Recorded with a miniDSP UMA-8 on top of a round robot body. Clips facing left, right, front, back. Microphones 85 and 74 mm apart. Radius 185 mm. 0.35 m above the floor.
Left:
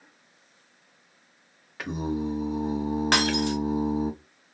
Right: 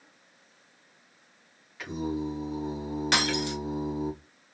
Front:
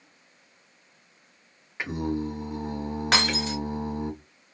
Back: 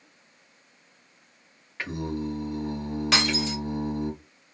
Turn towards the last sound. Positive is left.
turn(degrees=45)